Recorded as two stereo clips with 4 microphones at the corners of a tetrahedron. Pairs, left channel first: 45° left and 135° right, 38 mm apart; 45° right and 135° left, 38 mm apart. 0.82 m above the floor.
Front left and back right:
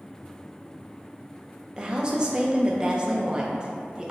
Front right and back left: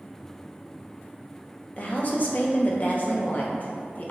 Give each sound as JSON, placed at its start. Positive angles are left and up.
{"t": 1.8, "sound": "a woman speaking", "azimuth_deg": -75, "distance_m": 0.8}